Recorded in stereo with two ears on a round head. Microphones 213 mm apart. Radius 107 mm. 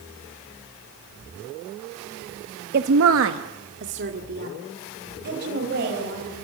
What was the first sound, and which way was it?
A woman speaking, 40° right (ahead or behind).